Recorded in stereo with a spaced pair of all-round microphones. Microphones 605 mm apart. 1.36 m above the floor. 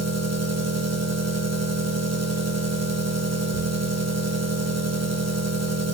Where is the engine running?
25° right (ahead or behind), 1.0 m.